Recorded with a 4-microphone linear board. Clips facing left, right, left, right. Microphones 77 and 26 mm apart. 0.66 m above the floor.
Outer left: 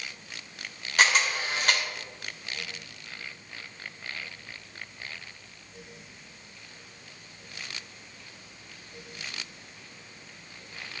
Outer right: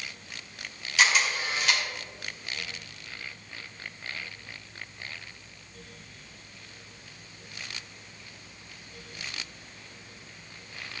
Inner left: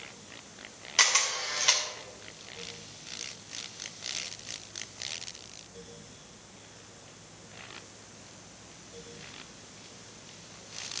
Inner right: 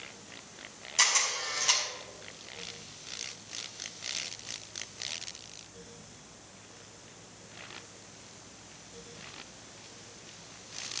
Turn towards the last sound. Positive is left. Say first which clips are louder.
# outer left 1 dB, inner left 2 dB
turn(degrees=45)  # may be behind; listen again after turning